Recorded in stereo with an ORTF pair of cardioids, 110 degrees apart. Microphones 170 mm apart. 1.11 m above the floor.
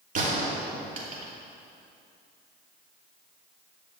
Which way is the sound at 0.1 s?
50° right.